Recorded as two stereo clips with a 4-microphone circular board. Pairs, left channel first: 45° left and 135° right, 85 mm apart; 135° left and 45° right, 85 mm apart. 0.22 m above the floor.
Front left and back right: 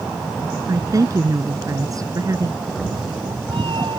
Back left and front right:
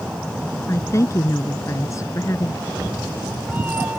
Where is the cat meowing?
115° right.